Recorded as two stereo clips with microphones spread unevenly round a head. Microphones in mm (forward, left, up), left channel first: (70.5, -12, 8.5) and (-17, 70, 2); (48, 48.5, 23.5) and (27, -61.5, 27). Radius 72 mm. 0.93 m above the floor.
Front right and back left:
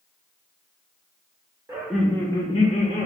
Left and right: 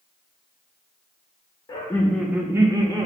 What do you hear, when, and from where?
1.7 s laughter: 90° left, 0.6 m; by 3.0 s 55° right, 0.9 m